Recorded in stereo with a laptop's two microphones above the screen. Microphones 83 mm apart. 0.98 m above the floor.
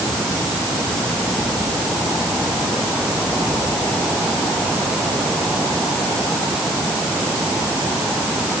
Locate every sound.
Only background noise.